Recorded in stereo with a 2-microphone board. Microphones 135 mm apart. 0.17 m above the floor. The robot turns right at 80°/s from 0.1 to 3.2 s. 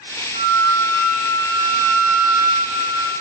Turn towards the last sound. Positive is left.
turn(degrees=-10)